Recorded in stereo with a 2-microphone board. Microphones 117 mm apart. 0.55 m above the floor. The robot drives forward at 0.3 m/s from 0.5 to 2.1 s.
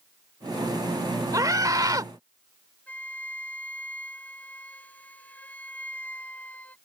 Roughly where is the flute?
Centre.